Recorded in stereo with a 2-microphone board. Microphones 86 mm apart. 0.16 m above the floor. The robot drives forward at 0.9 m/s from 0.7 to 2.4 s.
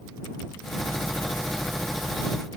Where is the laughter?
No laughter in this recording.